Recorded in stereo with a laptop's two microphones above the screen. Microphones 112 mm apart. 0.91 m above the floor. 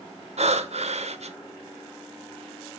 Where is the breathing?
70° right (ahead or behind), 1.3 m.